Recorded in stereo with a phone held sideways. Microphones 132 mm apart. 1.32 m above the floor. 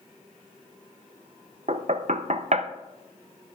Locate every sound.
1.7 s knocking: 60° right (ahead or behind), 0.7 m